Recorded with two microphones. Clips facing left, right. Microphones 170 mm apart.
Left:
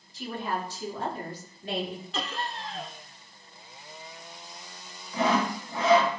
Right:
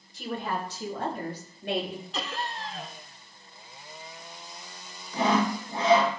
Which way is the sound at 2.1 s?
Centre (ahead or behind).